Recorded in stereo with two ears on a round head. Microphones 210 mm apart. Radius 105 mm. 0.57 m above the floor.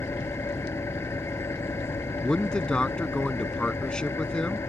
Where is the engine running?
10° left (ahead or behind).